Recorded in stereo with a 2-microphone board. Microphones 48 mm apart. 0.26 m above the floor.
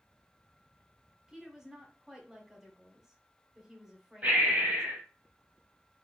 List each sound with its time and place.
1.3 s a woman speaking: 15° right (ahead or behind), 1.2 m
4.2 s breathing: 40° right (ahead or behind), 1.0 m